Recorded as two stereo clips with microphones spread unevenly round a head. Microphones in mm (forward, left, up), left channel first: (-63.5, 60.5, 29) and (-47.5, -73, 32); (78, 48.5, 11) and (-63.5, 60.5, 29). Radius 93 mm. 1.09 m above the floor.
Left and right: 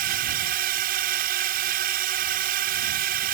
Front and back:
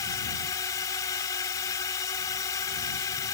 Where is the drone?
75° right.